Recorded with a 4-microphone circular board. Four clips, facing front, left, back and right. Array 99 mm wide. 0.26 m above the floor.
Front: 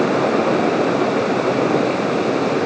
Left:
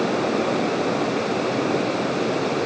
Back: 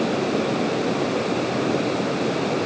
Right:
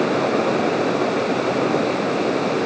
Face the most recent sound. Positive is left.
No sound to turn to.